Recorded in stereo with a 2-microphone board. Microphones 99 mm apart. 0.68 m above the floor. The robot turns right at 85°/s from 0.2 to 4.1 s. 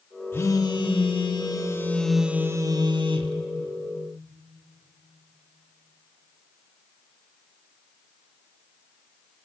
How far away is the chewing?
I don't hear chewing.